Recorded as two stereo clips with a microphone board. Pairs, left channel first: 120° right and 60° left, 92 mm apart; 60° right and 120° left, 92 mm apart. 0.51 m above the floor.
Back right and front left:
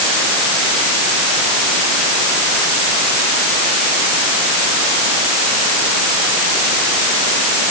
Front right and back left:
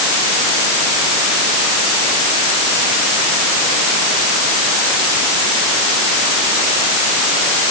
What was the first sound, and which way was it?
Only background noise.